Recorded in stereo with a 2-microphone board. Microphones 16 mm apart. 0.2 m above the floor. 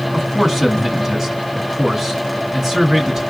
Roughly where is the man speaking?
Centre.